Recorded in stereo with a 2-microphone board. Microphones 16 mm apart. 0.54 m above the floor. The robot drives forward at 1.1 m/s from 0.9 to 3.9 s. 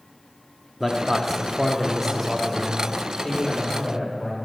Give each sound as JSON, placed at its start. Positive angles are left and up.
{"t": 0.8, "sound": "a man speaking", "side_deg": 0, "distance_m": 0.7}